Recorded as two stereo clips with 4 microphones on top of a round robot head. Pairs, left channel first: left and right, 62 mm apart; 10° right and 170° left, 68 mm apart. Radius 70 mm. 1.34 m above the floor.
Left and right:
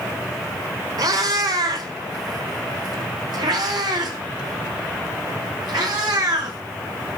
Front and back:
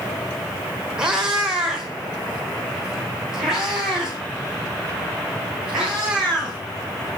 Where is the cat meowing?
105° right, 1.5 m; by 6.6 s 100° right, 5 m.